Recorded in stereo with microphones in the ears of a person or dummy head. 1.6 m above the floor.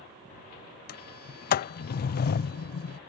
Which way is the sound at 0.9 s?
50° left (ahead or behind).